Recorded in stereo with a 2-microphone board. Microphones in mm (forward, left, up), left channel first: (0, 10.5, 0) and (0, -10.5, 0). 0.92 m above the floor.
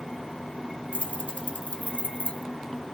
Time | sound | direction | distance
0.9 | keys jangling | 85° left | 1.0 m